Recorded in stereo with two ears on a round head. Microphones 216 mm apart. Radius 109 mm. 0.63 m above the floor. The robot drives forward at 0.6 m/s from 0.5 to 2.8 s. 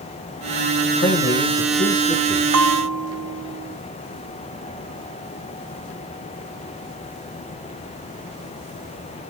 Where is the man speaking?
40° left (ahead or behind), 0.8 m; by 2.4 s 20° left (ahead or behind), 1.4 m.